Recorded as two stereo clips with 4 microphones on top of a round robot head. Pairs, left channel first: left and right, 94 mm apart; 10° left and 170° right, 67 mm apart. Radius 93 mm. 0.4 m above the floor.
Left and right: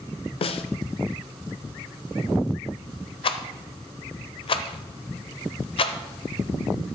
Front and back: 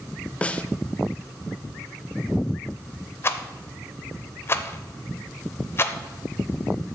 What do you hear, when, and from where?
0.4 s a snare drum: 80° left, 0.6 m
3.2 s a rattle: 65° left, 0.6 m